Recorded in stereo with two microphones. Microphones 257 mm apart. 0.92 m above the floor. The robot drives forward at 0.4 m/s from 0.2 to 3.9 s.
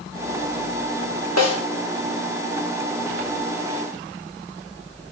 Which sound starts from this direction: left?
A snare drum, at 1.4 s.